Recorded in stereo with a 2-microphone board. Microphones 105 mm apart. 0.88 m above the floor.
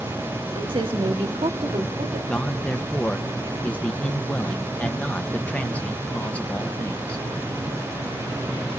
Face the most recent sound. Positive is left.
turn(degrees=10)  # may be behind; listen again after turning